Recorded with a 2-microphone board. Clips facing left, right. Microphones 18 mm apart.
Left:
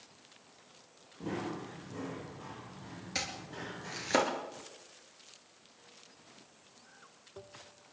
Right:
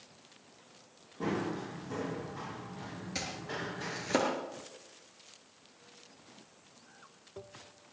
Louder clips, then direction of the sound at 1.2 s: Right 4 dB; 60° right (ahead or behind).